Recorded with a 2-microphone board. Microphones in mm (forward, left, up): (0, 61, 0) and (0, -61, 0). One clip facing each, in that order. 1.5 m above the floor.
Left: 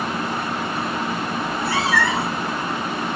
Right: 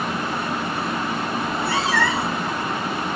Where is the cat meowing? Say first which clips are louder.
Left 1 dB; 25° right (ahead or behind), 0.9 m.